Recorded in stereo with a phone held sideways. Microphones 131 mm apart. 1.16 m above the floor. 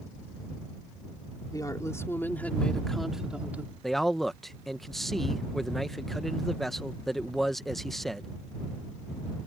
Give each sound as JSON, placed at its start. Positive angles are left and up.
{"t": 1.5, "sound": "a woman speaking", "side_deg": 30}
{"t": 3.8, "sound": "a man speaking", "side_deg": 0}